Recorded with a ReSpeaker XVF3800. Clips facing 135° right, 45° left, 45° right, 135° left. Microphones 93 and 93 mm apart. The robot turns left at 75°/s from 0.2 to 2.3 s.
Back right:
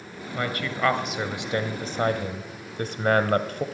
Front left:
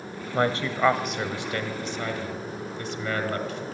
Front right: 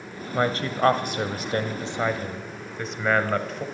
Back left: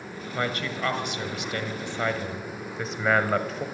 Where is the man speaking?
10° left, 1.3 m; by 3.6 s 135° right, 1.3 m.